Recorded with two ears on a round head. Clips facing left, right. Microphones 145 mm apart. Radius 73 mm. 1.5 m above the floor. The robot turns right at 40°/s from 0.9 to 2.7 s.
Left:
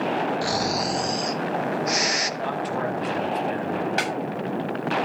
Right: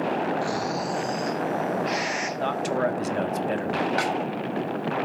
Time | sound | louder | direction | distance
0.4 | snoring | left 2 dB | 80° left | 1.1 m
2.4 | a man speaking | right 4 dB | 60° right (ahead or behind) | 1.8 m
4.0 | a snare drum | right 1 dB | 25° left (ahead or behind) | 7.5 m